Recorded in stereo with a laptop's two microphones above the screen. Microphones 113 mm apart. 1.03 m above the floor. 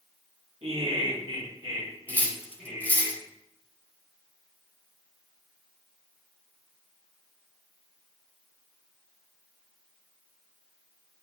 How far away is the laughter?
About 1.5 m.